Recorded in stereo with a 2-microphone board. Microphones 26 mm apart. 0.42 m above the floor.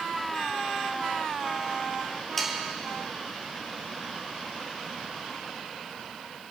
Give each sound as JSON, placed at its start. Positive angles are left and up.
{"t": 2.4, "sound": "sawing", "side_deg": 10, "distance_m": 2.5}